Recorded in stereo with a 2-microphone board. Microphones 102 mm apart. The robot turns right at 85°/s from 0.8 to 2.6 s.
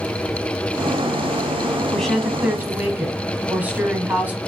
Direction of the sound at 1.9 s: 10° left (ahead or behind).